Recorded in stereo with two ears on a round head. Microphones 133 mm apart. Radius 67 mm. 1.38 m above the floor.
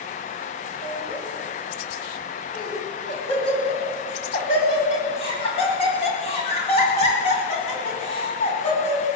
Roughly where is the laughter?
Left.